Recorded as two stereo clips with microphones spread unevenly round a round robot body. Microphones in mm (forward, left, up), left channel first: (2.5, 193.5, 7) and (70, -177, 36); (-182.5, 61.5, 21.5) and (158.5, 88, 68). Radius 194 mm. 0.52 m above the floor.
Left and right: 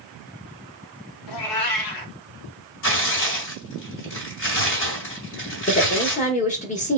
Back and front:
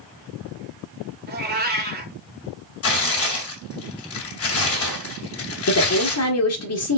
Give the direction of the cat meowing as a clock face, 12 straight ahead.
10 o'clock.